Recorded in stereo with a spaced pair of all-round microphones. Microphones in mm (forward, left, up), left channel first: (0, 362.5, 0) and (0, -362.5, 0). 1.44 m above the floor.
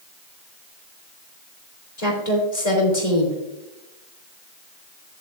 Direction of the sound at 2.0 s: 65° left (ahead or behind).